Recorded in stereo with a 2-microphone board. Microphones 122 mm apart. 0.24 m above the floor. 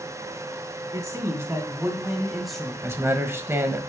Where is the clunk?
I don't hear a clunk.